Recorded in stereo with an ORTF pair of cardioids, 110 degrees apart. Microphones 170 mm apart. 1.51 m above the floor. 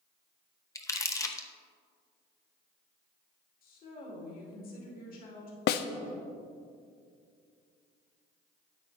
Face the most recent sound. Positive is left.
turn(degrees=70)